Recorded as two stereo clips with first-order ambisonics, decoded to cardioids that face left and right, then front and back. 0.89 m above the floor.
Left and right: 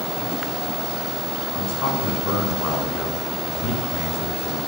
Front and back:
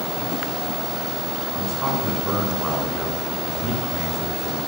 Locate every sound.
1.5 s a man speaking: 110° left, 10 m